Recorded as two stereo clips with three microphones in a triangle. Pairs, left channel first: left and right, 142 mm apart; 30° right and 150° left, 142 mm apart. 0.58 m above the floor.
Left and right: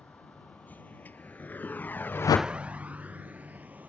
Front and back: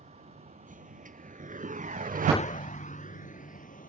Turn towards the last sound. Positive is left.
turn(degrees=-10)